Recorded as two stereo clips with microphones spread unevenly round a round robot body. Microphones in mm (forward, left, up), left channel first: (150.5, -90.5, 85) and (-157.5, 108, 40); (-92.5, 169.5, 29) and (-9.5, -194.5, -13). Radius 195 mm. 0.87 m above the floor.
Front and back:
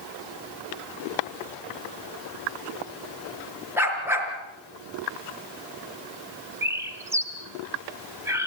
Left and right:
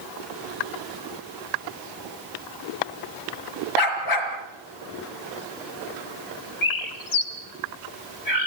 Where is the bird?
60° left, 2 m.